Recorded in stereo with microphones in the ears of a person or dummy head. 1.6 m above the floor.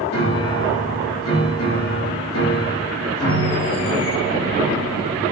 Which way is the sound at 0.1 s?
85° left.